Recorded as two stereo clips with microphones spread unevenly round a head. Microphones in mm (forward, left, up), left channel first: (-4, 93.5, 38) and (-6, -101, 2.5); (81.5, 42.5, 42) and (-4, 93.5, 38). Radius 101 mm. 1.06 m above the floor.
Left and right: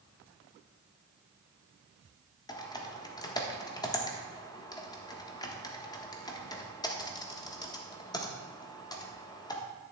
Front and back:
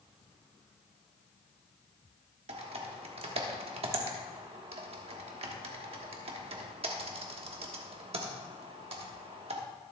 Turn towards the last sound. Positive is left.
turn(degrees=165)